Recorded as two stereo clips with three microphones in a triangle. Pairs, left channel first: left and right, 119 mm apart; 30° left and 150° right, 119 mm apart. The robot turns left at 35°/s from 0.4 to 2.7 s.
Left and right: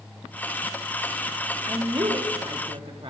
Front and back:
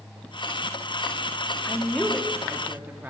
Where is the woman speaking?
40° right, 1.4 m; by 3.1 s 80° right, 1.4 m.